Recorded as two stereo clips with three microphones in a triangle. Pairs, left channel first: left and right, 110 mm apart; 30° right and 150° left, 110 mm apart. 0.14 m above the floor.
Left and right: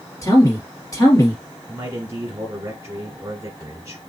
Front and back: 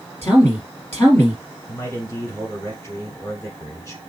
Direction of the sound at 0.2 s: 35° left.